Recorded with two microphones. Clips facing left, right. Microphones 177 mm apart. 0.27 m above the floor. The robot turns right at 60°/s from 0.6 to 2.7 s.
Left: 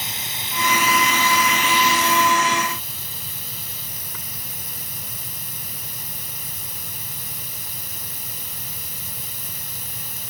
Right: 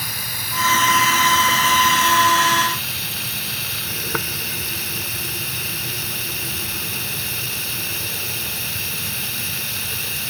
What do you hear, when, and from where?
0.0 s running water: 160° left; by 10.3 s 75° right